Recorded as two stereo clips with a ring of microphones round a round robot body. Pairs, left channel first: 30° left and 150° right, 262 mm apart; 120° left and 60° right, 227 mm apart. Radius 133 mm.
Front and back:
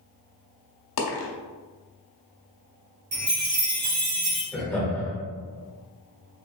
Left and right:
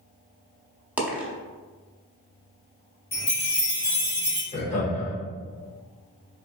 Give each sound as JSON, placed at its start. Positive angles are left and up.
{"t": 1.0, "sound": "a dropped coin", "azimuth_deg": 25, "distance_m": 1.0}
{"t": 3.1, "sound": "a chime", "azimuth_deg": 175, "distance_m": 1.9}
{"t": 4.5, "sound": "laughter", "azimuth_deg": 105, "distance_m": 0.9}